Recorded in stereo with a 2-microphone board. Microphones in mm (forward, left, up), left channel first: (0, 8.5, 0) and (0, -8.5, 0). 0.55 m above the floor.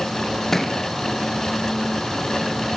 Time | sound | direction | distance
0.5 | a thud | 20° left (ahead or behind) | 3 m